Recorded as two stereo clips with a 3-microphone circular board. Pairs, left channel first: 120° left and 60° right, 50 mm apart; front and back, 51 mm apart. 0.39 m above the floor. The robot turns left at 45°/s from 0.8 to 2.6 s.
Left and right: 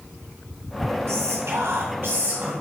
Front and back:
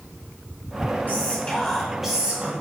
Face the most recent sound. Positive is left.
turn(degrees=-115)